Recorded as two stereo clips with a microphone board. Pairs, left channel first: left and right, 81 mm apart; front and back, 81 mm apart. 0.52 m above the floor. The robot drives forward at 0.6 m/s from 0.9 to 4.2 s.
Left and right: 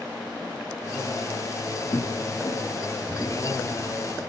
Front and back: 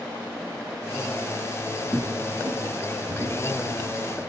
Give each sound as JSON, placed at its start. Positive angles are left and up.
{"t": 1.9, "sound": "footsteps", "azimuth_deg": 115, "distance_m": 0.8}